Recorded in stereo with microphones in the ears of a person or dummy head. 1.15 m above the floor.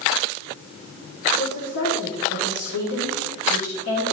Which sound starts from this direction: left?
A woman speaking, at 1.3 s.